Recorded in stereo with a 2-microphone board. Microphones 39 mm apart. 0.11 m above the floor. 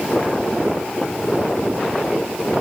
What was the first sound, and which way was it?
Only background noise.